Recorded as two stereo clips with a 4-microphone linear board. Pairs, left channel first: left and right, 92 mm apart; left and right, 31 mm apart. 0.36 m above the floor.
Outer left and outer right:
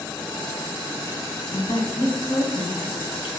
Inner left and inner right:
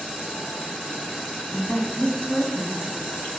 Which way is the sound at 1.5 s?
65° left (ahead or behind).